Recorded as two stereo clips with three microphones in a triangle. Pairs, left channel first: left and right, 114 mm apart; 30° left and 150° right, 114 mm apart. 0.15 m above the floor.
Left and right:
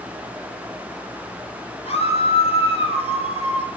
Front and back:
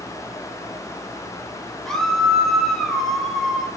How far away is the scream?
About 4.5 m.